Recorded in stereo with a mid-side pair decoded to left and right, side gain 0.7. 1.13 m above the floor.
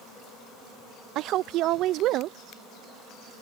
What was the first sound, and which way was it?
A woman speaking, 55° right.